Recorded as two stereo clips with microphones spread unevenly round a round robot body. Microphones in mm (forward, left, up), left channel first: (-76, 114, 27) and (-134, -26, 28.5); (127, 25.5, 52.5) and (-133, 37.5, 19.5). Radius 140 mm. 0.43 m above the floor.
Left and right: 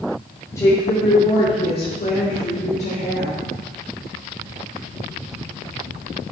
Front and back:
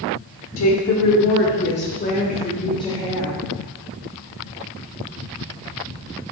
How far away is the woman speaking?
About 1.4 m.